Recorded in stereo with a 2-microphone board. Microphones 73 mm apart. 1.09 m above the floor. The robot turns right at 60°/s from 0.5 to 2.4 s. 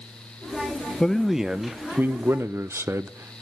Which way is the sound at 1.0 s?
165° left.